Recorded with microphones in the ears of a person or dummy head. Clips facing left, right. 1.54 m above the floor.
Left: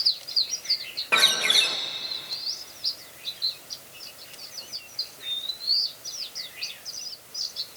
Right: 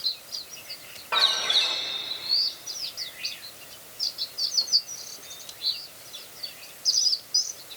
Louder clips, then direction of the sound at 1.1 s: Left 2 dB; 35° left (ahead or behind).